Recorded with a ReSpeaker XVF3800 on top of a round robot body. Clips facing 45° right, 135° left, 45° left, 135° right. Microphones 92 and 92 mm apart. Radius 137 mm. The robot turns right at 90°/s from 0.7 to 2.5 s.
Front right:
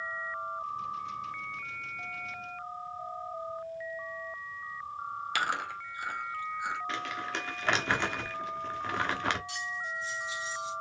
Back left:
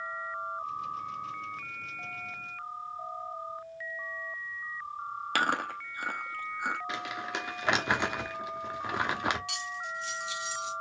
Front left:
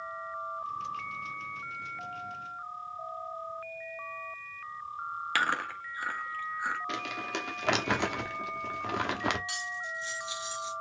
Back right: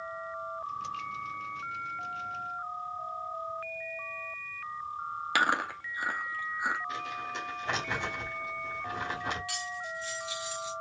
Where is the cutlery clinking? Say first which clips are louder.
Even, even; 110° left, 1.3 m.